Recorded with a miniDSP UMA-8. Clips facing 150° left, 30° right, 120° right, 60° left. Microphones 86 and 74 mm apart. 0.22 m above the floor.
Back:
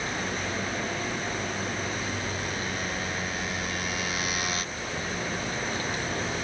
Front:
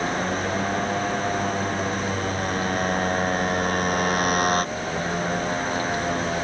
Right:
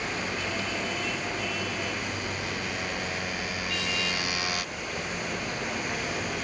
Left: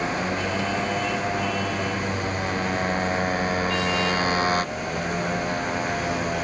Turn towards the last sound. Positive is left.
turn(degrees=10)